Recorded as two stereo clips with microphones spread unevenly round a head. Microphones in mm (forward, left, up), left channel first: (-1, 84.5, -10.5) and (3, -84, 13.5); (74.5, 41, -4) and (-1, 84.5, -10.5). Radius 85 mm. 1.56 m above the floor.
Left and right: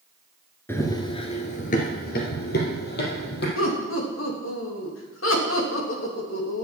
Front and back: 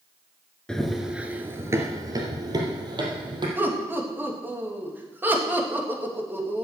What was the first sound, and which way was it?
Running footsteps, 15° left.